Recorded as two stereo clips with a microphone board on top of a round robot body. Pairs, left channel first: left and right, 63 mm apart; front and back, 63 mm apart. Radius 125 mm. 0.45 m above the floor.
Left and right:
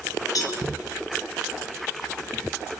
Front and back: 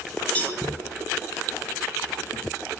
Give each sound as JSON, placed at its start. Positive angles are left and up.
{"t": 0.3, "sound": "a cowbell", "azimuth_deg": 70, "distance_m": 2.5}